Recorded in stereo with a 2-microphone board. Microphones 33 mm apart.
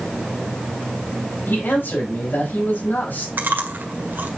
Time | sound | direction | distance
1.5 | a man speaking | 75° left (ahead or behind) | 4 m
3.4 | chewing | 65° right (ahead or behind) | 1.7 m